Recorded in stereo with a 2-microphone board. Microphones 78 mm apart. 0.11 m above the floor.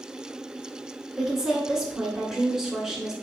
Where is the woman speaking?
5° right (ahead or behind), 1.1 m.